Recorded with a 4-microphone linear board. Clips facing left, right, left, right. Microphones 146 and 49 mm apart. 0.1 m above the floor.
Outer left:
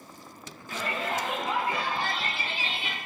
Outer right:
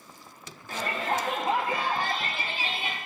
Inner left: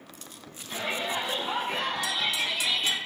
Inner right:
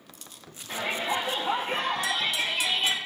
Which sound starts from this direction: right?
A shout, at 0.7 s.